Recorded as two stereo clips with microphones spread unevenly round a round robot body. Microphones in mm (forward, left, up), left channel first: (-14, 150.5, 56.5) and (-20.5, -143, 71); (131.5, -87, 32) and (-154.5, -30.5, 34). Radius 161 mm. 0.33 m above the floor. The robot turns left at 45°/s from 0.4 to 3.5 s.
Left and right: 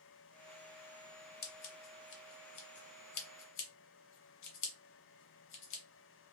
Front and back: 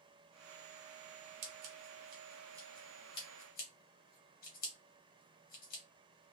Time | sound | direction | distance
1.4 | scissors | 140° left | 0.9 m